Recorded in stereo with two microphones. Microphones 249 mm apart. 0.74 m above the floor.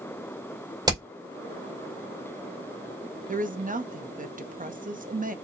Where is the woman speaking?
35° right (ahead or behind), 0.6 m.